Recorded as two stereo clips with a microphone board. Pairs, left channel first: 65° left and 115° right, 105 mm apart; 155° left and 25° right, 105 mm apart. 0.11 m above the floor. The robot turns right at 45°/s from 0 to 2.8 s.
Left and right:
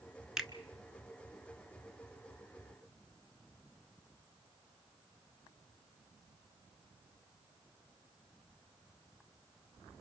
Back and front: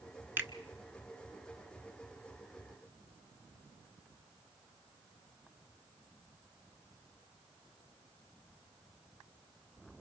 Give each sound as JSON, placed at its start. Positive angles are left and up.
{"t": 0.4, "sound": "a finger snap", "azimuth_deg": -35, "distance_m": 1.0}